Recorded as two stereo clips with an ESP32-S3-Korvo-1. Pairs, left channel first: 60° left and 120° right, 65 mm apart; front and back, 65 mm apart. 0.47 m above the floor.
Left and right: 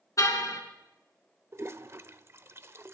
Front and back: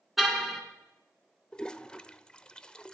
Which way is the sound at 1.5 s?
75° right.